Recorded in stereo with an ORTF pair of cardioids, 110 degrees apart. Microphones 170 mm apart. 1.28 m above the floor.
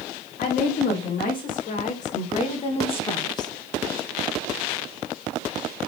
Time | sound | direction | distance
0.4 | a woman speaking | 65° left | 3 m